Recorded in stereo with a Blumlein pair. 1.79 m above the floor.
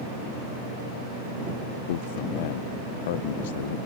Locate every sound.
1.9 s a man speaking: 55° left